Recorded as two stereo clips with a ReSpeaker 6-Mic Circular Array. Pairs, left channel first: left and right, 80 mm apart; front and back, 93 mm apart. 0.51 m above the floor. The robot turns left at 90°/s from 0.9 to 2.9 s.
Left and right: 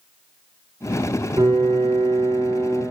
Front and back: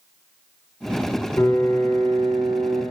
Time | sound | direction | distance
1.4 | a piano | 60° right | 2.5 m